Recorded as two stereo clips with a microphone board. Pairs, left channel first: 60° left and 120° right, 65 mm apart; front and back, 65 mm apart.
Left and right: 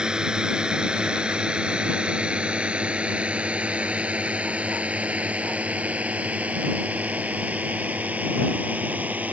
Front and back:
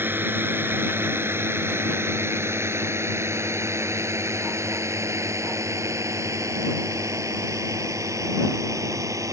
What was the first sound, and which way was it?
A drone, 175° left.